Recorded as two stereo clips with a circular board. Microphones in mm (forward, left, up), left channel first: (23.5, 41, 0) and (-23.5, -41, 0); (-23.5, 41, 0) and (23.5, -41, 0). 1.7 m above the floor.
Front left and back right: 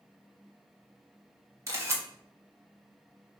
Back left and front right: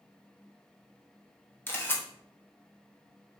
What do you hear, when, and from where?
1.7 s a camera shutter: 175° right, 1.1 m